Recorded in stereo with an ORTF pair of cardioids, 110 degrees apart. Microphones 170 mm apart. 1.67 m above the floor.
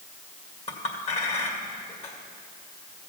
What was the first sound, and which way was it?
A clink, 40° left.